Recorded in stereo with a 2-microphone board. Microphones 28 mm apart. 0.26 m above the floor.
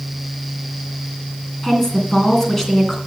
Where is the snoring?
No snoring in this recording.